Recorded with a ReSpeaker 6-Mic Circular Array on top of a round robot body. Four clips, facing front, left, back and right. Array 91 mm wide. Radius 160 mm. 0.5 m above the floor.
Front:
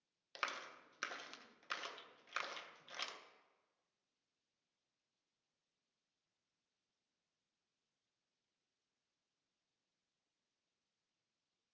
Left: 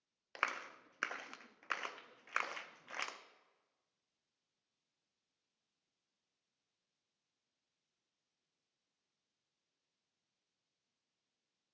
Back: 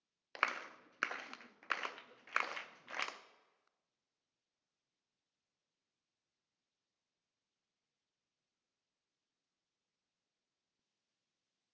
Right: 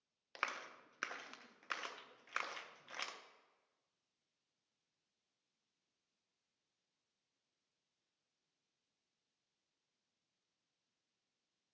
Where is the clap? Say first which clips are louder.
Left 4 dB, back 6 dB; 160° left, 0.8 m.